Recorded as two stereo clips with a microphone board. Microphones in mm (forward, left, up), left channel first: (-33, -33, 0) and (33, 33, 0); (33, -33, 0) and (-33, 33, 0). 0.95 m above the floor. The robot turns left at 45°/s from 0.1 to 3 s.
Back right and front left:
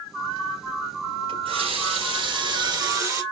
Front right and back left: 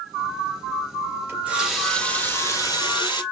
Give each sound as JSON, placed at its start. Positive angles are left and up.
{"t": 1.3, "sound": "a running tap", "azimuth_deg": 70, "distance_m": 3.0}